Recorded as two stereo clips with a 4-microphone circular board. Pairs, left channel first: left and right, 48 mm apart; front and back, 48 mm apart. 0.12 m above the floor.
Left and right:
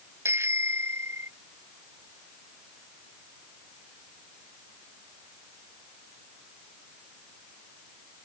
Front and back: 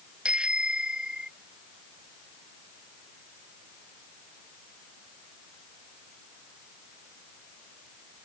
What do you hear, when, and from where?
0.2 s a bicycle bell: 110° right